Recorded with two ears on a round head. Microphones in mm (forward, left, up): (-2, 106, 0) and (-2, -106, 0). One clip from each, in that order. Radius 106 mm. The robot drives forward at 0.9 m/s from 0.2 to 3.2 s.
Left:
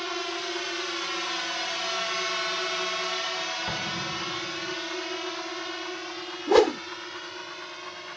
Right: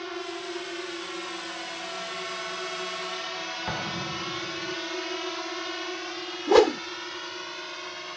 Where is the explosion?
5° right (ahead or behind).